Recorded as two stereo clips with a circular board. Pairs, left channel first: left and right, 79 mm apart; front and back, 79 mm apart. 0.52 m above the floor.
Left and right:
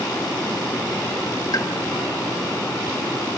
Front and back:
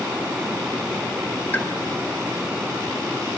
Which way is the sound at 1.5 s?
65° left.